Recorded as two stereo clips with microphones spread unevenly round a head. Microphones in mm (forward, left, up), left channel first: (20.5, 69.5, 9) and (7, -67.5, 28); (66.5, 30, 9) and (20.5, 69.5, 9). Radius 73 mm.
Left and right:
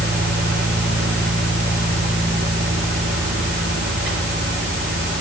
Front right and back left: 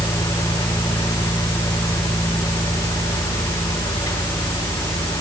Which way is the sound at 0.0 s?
85° right.